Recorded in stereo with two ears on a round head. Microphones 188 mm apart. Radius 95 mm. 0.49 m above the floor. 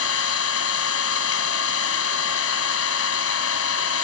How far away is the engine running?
About 2 m.